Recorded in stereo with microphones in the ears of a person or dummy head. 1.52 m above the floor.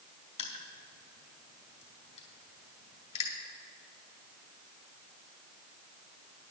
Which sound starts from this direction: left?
Crushing, at 0.4 s.